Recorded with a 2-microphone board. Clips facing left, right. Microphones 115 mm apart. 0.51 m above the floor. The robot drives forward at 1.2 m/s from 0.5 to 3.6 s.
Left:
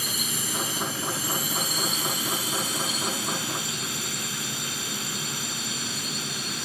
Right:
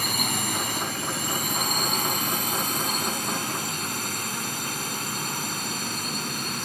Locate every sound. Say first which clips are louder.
0.0 s a drone: right 5 dB; 60° right (ahead or behind); by 6.7 s 50° right (ahead or behind)